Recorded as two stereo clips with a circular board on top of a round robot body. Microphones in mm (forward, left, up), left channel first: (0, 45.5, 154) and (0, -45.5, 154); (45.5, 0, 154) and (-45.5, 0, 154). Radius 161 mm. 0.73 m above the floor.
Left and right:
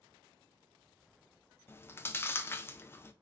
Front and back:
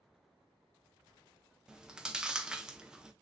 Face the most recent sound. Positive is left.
turn(degrees=110)